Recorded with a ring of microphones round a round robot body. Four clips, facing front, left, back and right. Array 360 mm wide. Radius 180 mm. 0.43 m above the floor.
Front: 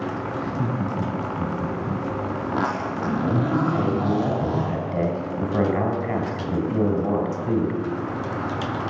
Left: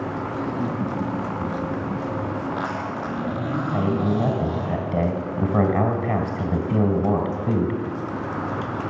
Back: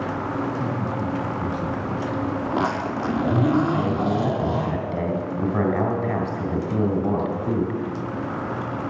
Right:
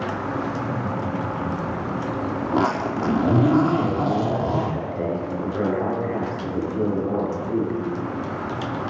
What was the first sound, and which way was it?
Laughter, 30° left.